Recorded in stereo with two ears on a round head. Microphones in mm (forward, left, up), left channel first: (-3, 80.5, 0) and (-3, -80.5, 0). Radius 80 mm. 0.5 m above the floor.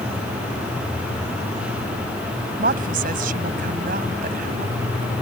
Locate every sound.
2.6 s a woman speaking: 50° right (ahead or behind)